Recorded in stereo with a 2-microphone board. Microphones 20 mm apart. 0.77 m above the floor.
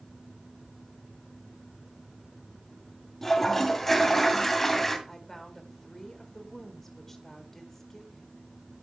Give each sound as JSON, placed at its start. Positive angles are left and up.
{"t": 3.2, "sound": "a toilet flushing", "side_deg": 15, "distance_m": 2.0}
{"t": 5.1, "sound": "a woman speaking", "side_deg": 15, "distance_m": 1.7}